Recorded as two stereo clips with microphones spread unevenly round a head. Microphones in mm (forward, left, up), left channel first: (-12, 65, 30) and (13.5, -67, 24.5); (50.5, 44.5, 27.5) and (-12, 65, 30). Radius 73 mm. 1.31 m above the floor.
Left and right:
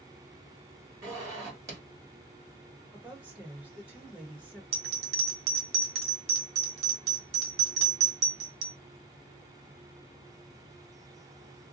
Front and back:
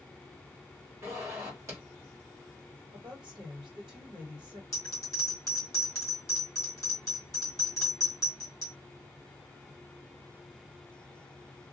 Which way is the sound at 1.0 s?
145° right.